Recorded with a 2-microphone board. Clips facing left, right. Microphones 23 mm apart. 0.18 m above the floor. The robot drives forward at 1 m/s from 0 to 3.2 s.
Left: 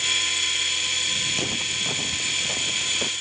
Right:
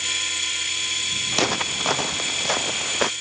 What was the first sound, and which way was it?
Footsteps, 55° right (ahead or behind).